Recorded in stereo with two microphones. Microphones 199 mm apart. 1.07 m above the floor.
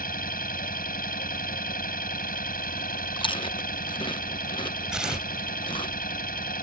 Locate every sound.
0.0 s an engine running: 45° left (ahead or behind)
3.2 s chewing: 25° left (ahead or behind)
4.9 s tearing paper: 5° right (ahead or behind)